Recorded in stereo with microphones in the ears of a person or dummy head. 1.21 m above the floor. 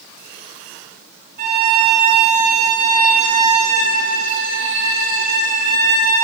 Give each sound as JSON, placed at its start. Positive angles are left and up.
{"t": 1.4, "sound": "a violin", "side_deg": -50, "distance_m": 2.0}